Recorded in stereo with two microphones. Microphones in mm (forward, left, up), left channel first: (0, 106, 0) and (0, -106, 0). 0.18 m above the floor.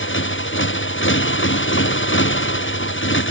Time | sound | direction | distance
0.0 | a motorcycle | 65° left (ahead or behind) | ?